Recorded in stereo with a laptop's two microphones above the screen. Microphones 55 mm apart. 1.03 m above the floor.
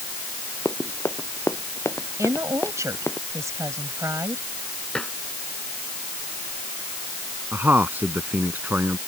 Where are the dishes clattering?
10° left (ahead or behind).